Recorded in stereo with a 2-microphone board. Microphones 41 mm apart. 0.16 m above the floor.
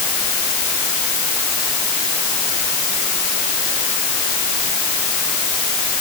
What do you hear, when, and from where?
Only background noise.